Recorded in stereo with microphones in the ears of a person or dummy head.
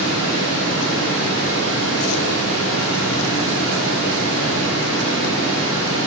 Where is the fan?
80° left, 3.5 m.